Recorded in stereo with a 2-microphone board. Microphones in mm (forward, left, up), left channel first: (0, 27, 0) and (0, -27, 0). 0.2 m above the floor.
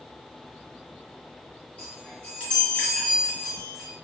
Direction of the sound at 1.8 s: 25° left (ahead or behind).